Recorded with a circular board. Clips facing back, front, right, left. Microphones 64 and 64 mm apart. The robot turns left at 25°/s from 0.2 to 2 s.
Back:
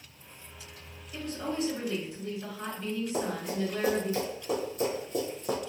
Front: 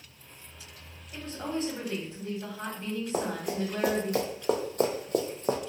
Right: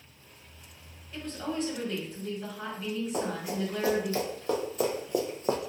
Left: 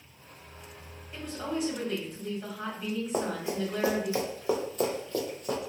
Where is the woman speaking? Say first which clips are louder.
Even, even; 25° left, 1.4 m; by 4.1 s 5° left, 1.4 m.